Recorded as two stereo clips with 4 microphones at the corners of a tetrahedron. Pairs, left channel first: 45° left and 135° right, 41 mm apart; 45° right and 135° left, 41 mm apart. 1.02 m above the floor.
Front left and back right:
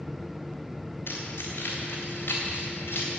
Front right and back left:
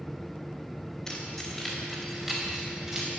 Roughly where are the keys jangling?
Ahead left.